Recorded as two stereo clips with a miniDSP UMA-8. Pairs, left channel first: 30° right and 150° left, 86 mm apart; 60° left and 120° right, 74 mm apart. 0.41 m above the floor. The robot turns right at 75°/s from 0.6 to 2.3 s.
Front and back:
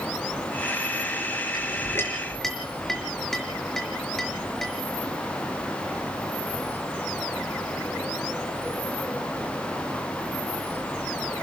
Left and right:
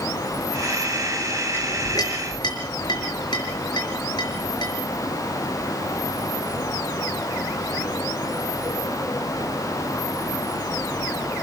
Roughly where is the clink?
Ahead.